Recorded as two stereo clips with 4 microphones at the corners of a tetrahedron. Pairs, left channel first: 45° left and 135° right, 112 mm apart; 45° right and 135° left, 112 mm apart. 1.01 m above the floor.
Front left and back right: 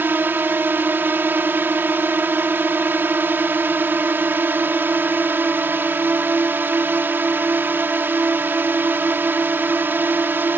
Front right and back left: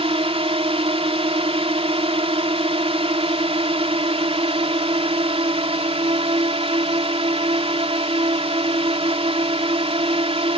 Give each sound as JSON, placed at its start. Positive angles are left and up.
{"t": 0.0, "sound": "a drone", "azimuth_deg": 155}